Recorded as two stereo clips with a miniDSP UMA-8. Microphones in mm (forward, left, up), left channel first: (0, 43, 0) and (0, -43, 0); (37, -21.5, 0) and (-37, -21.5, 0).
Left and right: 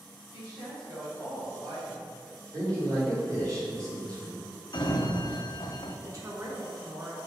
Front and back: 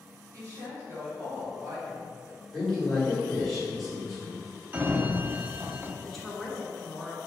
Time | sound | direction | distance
0.3 | a woman speaking | 145° right | 1.7 m
2.5 | a man speaking | 90° right | 1.6 m
4.7 | a sliding door | 115° left | 0.5 m
6.0 | a woman speaking | 85° right | 1.0 m